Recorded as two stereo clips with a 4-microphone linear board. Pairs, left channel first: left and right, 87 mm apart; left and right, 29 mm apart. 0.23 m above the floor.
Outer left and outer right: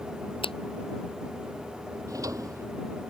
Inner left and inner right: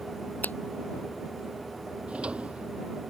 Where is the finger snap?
80° left.